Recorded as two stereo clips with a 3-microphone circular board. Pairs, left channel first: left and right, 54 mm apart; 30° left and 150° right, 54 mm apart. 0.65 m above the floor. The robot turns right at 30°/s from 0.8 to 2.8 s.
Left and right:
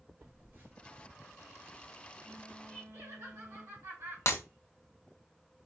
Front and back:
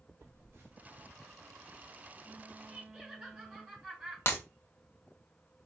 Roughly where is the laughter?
Right.